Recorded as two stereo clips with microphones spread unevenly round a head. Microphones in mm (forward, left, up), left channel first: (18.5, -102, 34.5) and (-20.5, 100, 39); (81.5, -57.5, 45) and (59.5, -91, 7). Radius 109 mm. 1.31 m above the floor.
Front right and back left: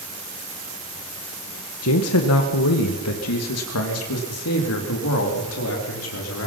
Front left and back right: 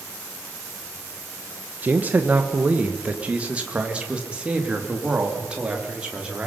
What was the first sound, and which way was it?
A man speaking, 95° right.